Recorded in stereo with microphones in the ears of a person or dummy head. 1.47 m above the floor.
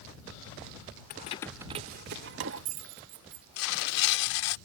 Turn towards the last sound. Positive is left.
turn(degrees=90)